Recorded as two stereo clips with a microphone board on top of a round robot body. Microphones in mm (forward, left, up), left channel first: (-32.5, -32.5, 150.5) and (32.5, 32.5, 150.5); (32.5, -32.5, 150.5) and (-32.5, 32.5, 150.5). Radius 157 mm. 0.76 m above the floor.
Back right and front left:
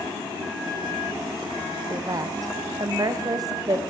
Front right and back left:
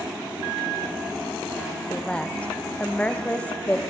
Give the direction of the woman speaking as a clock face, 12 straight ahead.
11 o'clock.